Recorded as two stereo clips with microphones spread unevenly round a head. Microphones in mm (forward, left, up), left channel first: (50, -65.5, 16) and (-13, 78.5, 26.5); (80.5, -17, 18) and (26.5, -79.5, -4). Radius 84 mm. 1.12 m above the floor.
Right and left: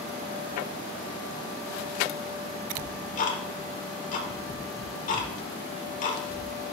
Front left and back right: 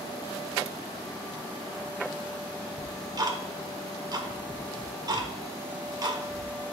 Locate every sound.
2.8 s ticking: 105° right, 1.0 m